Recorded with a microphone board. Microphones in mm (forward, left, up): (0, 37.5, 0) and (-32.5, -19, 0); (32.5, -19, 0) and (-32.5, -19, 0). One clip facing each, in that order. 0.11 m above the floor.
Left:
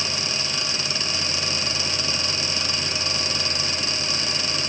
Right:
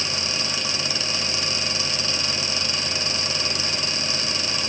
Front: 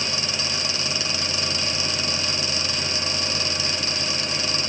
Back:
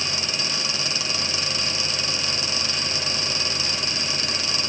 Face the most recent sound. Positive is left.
No sound to turn to.